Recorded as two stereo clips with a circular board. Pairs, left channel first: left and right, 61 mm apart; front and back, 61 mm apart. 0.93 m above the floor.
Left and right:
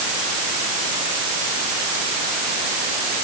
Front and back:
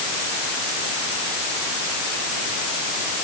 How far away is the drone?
I don't hear a drone.